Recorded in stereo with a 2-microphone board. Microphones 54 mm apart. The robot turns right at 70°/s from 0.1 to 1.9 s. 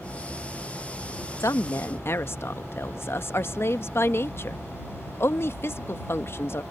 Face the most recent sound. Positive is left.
turn(degrees=125)